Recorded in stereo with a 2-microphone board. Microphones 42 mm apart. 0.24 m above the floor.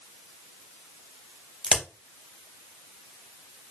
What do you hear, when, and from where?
1.6 s a crack: 10° right (ahead or behind), 0.6 m